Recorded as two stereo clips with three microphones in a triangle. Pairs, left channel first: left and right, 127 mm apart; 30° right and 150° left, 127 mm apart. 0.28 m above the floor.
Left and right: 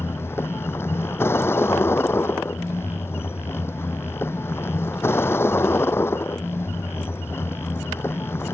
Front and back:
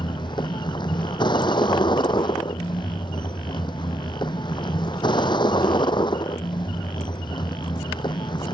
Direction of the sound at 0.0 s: 20° left.